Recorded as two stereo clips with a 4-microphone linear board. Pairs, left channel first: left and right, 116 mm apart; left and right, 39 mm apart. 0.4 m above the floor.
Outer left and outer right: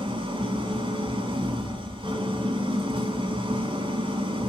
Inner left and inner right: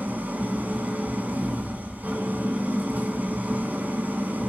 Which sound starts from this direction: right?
An engine running, at 0.0 s.